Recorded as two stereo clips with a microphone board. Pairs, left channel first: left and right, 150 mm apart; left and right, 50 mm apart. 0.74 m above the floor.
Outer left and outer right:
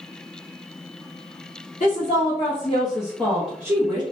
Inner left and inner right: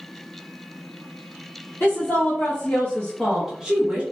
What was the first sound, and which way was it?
A woman speaking, 55° left (ahead or behind).